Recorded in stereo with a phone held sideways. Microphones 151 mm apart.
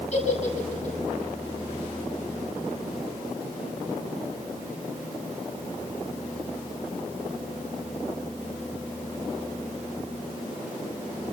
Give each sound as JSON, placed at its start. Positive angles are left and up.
{"t": 0.1, "sound": "a giggle", "side_deg": 50, "distance_m": 8.5}